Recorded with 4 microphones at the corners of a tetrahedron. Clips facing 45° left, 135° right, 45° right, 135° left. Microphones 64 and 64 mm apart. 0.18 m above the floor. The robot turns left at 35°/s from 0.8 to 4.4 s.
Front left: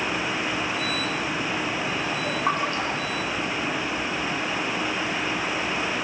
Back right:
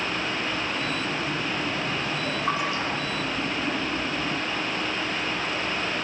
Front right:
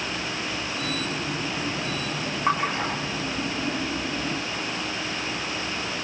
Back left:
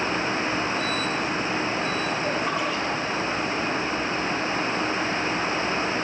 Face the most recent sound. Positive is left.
turn(degrees=-60)